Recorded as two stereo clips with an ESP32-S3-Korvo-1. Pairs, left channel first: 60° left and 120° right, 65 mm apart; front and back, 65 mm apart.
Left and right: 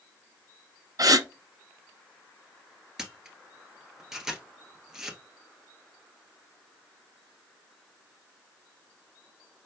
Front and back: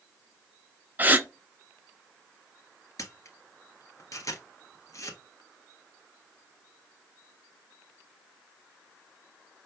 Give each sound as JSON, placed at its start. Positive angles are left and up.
{"t": 1.0, "sound": "a gasp", "azimuth_deg": -115, "distance_m": 0.6}
{"t": 3.0, "sound": "a camera shutter", "azimuth_deg": -40, "distance_m": 1.1}